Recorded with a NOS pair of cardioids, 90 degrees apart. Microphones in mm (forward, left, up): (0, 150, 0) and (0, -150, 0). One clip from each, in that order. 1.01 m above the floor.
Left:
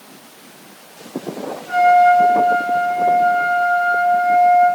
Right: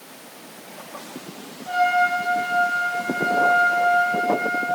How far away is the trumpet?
About 1.7 m.